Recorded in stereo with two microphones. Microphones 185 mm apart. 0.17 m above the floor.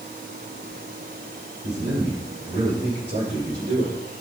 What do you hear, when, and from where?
1.6 s a man speaking: 70° right (ahead or behind), 5 m